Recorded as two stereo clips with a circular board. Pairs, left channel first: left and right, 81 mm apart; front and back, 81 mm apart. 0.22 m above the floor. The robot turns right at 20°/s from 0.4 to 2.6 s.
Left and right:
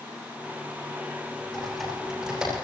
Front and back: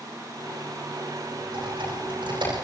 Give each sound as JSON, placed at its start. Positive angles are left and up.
{"t": 1.5, "sound": "typing on a keyboard", "azimuth_deg": 170, "distance_m": 9.0}